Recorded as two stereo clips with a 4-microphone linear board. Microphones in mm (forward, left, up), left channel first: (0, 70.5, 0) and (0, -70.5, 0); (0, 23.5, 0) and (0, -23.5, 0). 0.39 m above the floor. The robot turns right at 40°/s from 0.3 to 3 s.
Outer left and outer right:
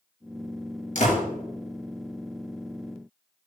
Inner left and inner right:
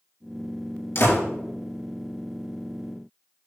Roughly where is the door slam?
Left.